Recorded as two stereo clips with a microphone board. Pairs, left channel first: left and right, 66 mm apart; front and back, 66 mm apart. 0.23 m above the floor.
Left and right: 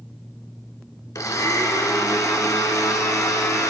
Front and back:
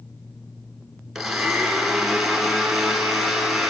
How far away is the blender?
About 1.0 m.